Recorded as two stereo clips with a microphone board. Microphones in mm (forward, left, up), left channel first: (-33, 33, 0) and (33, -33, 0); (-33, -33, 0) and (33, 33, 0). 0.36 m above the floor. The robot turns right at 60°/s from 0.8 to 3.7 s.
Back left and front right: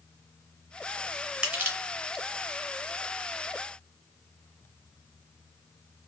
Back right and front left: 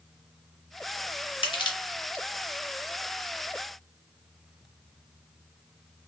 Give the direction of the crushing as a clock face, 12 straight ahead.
4 o'clock.